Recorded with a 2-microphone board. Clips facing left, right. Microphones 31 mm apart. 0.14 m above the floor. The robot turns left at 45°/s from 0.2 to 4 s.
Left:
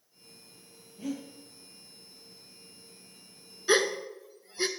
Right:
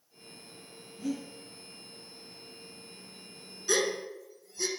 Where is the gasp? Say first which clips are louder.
Left 3 dB; 35° left (ahead or behind), 0.6 m; by 4.7 s 40° left (ahead or behind), 0.6 m.